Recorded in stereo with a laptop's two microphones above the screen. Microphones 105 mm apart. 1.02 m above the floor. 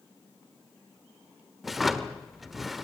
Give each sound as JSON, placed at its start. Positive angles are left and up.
{"t": 1.6, "sound": "a drawer", "side_deg": 0, "distance_m": 1.2}